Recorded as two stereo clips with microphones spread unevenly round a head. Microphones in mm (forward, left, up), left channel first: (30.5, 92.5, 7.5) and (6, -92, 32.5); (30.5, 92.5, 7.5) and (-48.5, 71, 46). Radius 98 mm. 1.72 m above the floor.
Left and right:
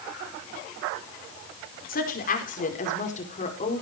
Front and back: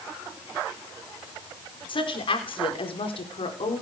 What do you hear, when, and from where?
1.9 s a woman speaking: 40° left, 5 m; by 3.8 s 25° left, 4.5 m